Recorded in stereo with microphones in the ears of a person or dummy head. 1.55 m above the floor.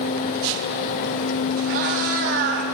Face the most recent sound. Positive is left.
turn(degrees=-50)  # may be behind; listen again after turning